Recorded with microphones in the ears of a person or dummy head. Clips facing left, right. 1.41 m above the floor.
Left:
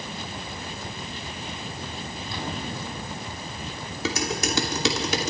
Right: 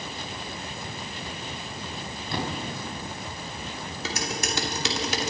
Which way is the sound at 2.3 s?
55° right (ahead or behind).